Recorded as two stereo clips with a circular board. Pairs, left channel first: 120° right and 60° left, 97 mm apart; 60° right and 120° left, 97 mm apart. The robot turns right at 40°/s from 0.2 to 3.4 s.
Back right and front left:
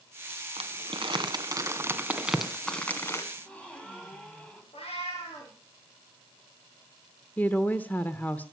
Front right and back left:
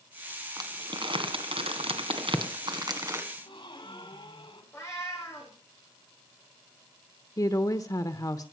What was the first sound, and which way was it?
Crumpling, 70° left.